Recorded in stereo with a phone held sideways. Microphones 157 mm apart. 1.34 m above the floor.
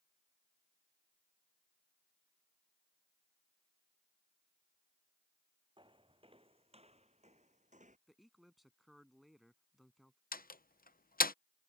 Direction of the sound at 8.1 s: Centre (ahead or behind).